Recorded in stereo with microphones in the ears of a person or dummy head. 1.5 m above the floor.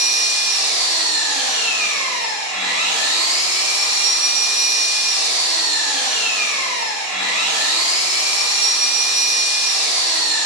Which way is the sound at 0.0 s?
5° right (ahead or behind).